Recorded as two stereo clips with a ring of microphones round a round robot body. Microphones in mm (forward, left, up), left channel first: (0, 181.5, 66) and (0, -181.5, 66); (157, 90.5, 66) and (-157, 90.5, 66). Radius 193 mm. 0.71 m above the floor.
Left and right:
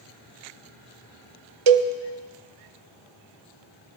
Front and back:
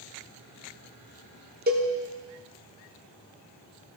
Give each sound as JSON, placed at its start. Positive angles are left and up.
{"t": 1.7, "sound": "a cowbell", "azimuth_deg": -115, "distance_m": 0.5}